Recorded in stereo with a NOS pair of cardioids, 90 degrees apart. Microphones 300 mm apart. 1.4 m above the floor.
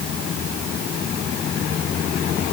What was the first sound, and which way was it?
Only background noise.